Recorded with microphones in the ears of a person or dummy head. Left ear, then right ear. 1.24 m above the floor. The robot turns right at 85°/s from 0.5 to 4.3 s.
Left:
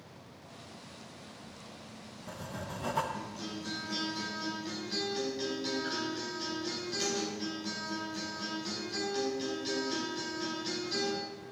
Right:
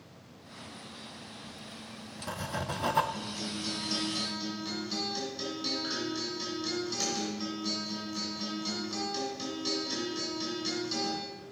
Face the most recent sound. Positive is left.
turn(degrees=0)